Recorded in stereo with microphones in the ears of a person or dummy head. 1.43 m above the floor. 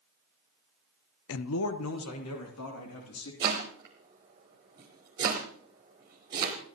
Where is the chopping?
15° right (ahead or behind), 1.3 m.